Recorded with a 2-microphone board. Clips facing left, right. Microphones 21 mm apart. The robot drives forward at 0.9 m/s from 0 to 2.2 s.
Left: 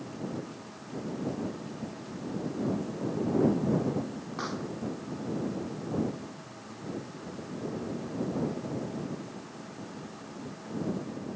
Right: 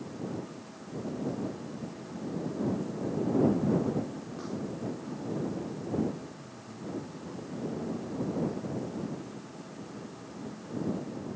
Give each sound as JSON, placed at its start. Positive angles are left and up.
{"t": 4.4, "sound": "a pop", "side_deg": 50}
{"t": 6.4, "sound": "a man speaking", "side_deg": -60}